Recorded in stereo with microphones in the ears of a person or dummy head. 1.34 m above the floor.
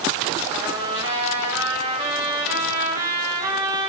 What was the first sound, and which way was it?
A trumpet, 15° right (ahead or behind).